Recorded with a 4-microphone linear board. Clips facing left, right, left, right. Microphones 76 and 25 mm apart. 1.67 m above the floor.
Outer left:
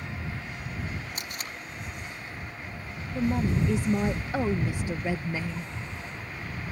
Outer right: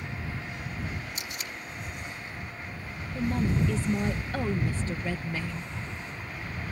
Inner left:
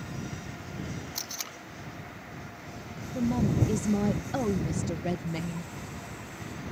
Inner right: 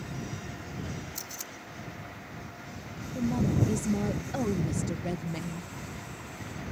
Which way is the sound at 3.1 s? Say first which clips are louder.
Outer left 1 dB, inner left 1 dB; 15° left (ahead or behind).